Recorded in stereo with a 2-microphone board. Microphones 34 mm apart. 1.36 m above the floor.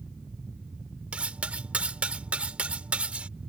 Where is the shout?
I don't hear a shout.